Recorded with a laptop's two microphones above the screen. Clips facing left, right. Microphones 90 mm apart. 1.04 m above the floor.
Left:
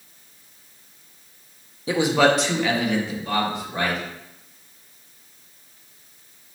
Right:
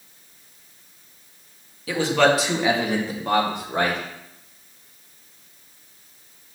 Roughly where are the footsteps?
I don't hear footsteps.